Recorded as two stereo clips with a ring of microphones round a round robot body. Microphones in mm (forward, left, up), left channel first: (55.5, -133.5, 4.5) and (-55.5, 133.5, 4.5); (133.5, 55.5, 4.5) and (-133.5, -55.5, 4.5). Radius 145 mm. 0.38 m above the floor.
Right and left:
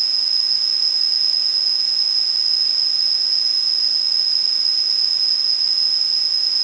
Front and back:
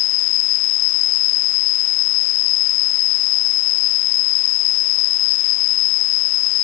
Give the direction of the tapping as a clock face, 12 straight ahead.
I don't hear tapping.